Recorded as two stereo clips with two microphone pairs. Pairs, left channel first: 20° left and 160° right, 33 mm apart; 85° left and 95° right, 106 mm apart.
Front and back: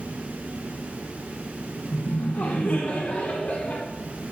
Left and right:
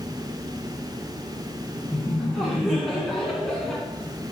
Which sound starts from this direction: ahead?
Laughter, at 1.9 s.